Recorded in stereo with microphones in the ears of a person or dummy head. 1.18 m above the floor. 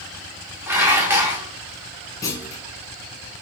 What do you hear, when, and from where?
0.7 s dishes clattering: 10° right (ahead or behind), 0.7 m
2.2 s a clunk: 15° left (ahead or behind), 0.8 m